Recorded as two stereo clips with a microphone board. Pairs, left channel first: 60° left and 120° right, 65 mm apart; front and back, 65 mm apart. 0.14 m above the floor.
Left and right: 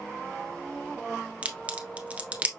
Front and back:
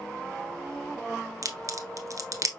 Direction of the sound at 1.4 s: 175° left.